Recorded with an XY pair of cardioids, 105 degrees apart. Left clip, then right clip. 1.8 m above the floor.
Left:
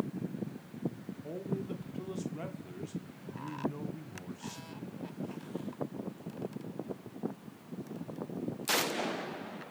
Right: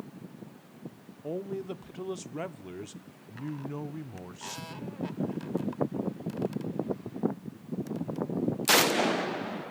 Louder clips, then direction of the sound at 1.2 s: Right 5 dB; 50° right.